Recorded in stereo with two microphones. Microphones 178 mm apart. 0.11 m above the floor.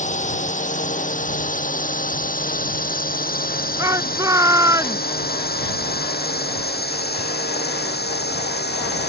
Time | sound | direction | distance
0.0 | a drone | 45° left (ahead or behind) | ?
3.8 | a shout | 20° right (ahead or behind) | ?